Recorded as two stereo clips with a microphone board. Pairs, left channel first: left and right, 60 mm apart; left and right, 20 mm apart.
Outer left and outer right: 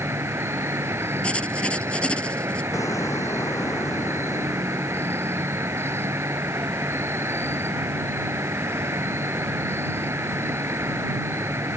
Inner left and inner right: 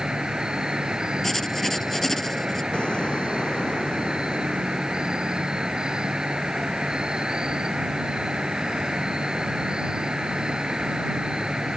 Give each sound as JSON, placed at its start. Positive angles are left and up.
{"t": 0.0, "sound": "an insect", "side_deg": -50}
{"t": 1.2, "sound": "writing", "side_deg": 15}
{"t": 2.7, "sound": "an explosion", "side_deg": 70}